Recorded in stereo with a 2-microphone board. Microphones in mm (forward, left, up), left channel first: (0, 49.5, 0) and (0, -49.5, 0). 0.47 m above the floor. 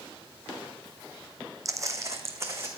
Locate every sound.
1.6 s footsteps: 35° right (ahead or behind), 1.3 m; by 2.7 s 30° right (ahead or behind), 2.5 m